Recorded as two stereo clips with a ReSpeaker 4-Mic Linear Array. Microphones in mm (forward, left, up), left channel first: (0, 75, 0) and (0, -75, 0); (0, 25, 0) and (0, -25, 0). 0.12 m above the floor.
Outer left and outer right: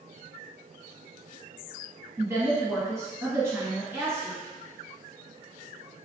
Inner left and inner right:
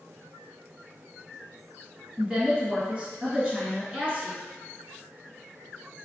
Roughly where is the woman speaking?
Centre.